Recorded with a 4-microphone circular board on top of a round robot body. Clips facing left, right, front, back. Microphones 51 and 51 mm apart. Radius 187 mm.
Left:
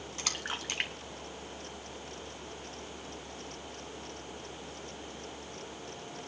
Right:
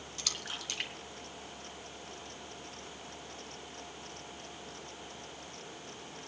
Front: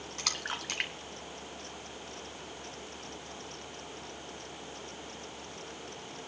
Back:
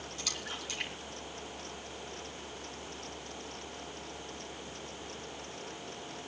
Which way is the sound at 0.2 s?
35° left.